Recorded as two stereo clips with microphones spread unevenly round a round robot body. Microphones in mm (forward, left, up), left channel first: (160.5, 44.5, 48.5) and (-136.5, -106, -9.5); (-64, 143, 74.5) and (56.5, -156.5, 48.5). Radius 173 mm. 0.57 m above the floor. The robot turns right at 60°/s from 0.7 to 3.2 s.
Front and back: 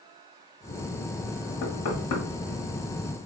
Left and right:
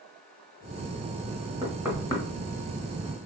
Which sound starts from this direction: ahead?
Knocking, at 1.6 s.